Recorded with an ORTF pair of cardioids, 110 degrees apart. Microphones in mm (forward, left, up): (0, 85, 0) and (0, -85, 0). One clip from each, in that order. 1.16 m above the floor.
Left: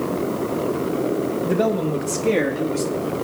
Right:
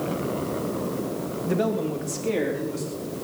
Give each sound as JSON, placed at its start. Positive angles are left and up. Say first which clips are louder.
{"t": 1.4, "sound": "a man speaking", "louder": "left 2 dB", "azimuth_deg": 10, "distance_m": 1.9}